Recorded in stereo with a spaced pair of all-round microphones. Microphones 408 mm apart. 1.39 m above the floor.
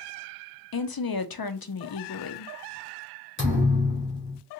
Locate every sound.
0.7 s a woman speaking: 60° left (ahead or behind), 0.5 m
3.4 s a thud: 30° left (ahead or behind), 1.7 m